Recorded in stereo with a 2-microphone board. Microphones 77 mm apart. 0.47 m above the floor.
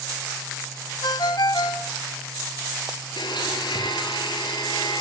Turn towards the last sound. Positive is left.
turn(degrees=85)